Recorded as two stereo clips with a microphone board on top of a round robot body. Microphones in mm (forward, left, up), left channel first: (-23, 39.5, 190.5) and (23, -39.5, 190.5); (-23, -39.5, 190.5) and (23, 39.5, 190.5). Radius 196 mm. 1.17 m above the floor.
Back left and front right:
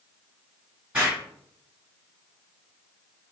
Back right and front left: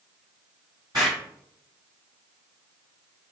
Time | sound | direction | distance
0.9 | an explosion | 15° left | 1.2 m